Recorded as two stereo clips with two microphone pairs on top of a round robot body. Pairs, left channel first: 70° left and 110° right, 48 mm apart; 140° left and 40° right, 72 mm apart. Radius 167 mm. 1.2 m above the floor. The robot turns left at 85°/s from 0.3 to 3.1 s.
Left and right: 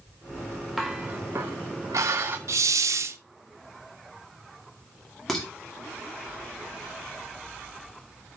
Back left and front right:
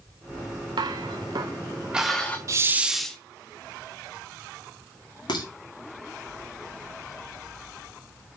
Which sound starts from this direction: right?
A hiss, at 2.5 s.